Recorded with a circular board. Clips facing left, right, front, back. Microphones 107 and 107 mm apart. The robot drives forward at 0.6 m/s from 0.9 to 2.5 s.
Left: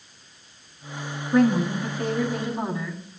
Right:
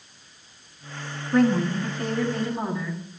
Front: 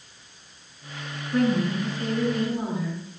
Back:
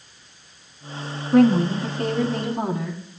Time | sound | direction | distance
1.3 | a woman speaking | 175° left | 2.0 m